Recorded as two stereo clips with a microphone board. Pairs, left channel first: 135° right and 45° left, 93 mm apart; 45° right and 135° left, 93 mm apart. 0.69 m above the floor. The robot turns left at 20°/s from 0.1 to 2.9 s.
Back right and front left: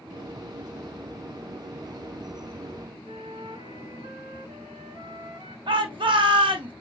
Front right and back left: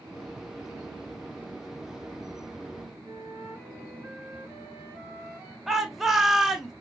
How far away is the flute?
About 2.5 m.